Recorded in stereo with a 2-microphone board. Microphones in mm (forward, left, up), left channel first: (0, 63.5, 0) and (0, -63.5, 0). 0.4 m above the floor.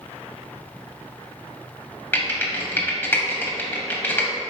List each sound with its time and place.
2.1 s typing on a keyboard: 15° left (ahead or behind), 0.8 m